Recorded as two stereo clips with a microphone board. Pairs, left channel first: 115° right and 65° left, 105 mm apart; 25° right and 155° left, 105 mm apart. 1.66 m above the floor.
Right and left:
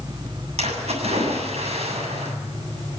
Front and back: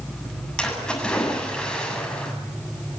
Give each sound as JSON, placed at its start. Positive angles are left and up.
{"t": 0.6, "sound": "a splash", "azimuth_deg": 60, "distance_m": 7.5}